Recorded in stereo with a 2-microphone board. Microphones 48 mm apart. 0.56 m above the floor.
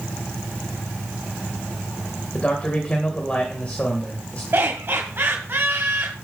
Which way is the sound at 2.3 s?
25° left (ahead or behind).